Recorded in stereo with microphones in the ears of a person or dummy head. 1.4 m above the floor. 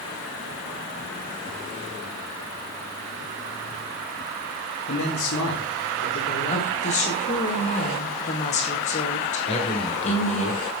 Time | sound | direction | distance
4.9 | a man speaking | 60° left (ahead or behind) | 2.5 m
6.5 | a woman speaking | 40° left (ahead or behind) | 2.5 m
9.5 | a man speaking | 35° left (ahead or behind) | 4 m